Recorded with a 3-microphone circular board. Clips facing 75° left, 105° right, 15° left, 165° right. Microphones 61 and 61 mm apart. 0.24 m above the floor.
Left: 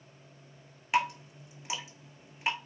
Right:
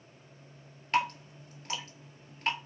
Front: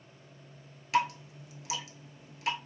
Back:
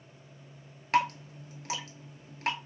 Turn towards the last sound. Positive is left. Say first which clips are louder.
# even, back 2 dB
turn(degrees=155)